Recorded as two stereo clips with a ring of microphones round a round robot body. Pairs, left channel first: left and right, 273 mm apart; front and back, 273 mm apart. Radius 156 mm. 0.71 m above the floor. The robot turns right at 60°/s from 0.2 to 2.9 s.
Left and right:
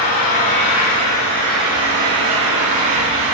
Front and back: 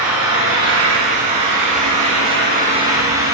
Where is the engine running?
95° left, 5 m; by 3.4 s 100° right, 5 m.